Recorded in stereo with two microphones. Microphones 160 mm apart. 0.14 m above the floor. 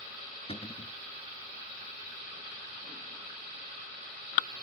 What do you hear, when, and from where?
0.5 s a cupboard door: 40° left (ahead or behind), 1.1 m